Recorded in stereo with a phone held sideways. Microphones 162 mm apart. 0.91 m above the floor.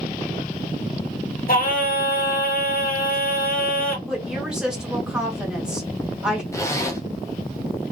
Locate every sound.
1.5 s singing: 60° left (ahead or behind), 1.1 m
4.1 s a woman speaking: 5° right (ahead or behind), 1.4 m
6.5 s a zipper: 20° left (ahead or behind), 0.8 m